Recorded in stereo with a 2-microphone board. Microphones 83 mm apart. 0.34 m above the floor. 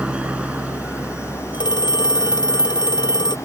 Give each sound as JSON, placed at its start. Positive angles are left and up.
{"t": 0.0, "sound": "a helicopter", "side_deg": -15}
{"t": 1.5, "sound": "a phone ringing", "side_deg": 60}